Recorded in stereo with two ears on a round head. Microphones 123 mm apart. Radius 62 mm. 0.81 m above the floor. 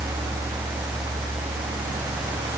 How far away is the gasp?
No gasp in this recording.